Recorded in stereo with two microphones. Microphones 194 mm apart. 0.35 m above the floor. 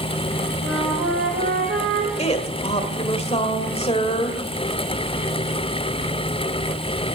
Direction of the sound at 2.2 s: 35° left (ahead or behind).